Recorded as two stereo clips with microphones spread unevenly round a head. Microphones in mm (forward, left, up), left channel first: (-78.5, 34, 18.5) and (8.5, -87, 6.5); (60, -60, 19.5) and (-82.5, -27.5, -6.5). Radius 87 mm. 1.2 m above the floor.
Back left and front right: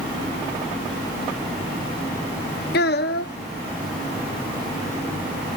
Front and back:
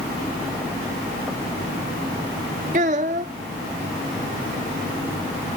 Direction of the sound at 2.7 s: 115° left.